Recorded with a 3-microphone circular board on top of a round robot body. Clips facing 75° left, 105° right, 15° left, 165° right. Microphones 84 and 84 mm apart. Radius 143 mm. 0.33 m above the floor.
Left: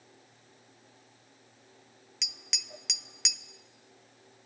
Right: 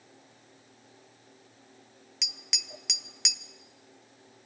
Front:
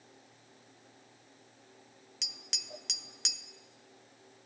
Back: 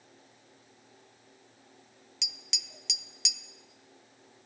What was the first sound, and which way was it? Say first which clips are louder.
Tapping: right 2 dB, back 2 dB; 15° right.